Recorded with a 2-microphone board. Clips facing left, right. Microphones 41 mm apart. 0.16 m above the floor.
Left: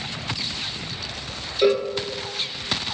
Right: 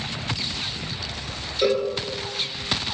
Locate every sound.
1.6 s a cowbell: 10° left (ahead or behind), 0.5 m